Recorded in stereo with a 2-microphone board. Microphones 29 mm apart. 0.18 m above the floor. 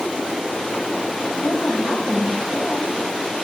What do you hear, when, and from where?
1.2 s a woman speaking: 75° left (ahead or behind), 8 m